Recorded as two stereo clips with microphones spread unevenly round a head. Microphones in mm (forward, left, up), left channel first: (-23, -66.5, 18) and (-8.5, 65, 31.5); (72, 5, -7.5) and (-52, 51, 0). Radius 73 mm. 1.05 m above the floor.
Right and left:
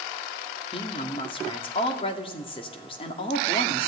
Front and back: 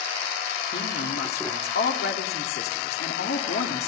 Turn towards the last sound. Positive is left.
turn(degrees=-45)